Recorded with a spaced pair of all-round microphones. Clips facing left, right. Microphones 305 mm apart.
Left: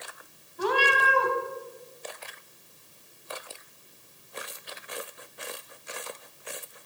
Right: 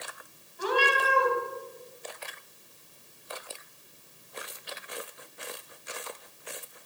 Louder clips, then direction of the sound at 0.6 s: Left 1 dB; 65° left (ahead or behind).